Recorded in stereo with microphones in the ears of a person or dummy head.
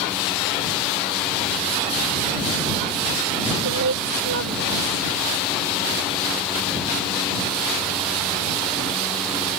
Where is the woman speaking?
70° right (ahead or behind).